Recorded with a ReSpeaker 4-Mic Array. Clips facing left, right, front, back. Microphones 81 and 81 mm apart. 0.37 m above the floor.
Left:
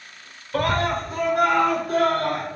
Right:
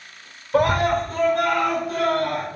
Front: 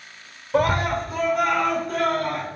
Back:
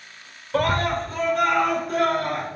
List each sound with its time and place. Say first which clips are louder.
0.5 s a scream: right 4 dB, front 1 dB; 50° right, 0.8 m; by 2.5 s 100° left, 1.3 m